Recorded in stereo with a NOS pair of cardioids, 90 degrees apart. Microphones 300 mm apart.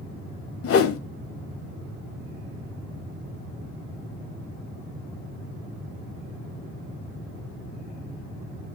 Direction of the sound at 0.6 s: 50° left.